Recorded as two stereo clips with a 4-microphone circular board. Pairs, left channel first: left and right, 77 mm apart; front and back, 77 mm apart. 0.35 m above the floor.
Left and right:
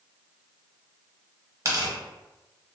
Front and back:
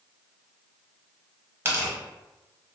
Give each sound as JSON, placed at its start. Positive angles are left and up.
{"t": 1.6, "sound": "tearing paper", "azimuth_deg": -125, "distance_m": 0.7}